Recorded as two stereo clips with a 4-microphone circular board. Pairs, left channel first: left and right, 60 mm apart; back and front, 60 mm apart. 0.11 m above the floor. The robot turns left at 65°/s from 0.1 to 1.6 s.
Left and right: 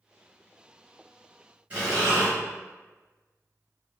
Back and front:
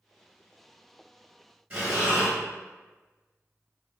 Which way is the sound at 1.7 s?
40° right.